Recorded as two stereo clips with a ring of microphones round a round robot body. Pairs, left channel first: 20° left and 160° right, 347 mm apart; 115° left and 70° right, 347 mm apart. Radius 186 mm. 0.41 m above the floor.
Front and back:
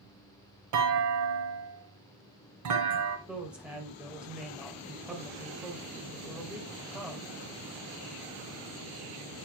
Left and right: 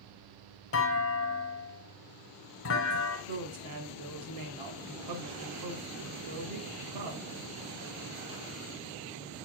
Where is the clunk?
165° left, 1.3 m.